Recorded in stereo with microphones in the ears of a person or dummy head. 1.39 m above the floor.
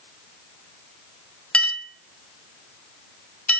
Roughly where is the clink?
Centre.